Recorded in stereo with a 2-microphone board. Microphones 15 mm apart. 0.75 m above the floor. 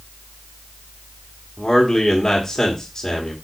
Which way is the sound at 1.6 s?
55° left (ahead or behind).